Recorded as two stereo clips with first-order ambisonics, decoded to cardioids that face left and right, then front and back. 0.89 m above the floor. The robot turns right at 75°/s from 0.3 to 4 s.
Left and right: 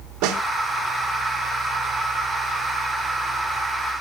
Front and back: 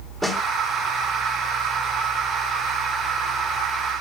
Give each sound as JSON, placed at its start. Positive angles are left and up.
{"t": 0.2, "sound": "a snare drum", "azimuth_deg": -85, "distance_m": 1.6}